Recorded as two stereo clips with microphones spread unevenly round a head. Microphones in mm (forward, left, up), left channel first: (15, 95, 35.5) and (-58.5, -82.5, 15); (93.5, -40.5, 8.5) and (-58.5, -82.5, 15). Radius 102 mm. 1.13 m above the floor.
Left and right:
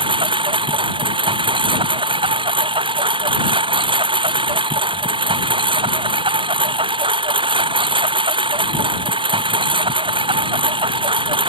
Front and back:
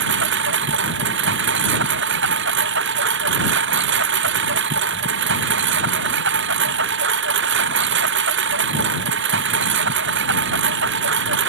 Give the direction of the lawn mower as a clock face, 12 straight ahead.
6 o'clock.